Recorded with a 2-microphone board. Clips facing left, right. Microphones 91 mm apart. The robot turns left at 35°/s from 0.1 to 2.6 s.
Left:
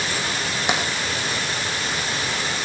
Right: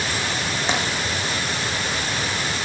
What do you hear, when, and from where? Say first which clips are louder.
0.7 s tapping: left 1 dB; 15° left (ahead or behind), 5.5 m; by 0.8 s 20° left (ahead or behind), 5.5 m